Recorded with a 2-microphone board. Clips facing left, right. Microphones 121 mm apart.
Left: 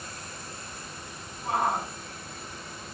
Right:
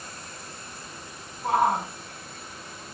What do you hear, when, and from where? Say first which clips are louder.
1.4 s a shout: right 5 dB; 60° right (ahead or behind), 4.5 m